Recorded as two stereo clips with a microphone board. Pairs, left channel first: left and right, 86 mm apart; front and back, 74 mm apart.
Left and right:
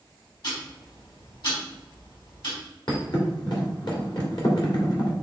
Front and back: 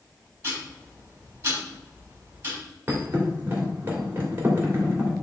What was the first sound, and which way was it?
Ticking, 125° left.